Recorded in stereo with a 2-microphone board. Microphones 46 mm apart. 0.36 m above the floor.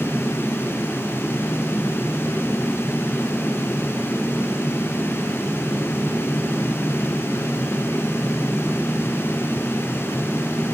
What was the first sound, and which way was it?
Only background noise.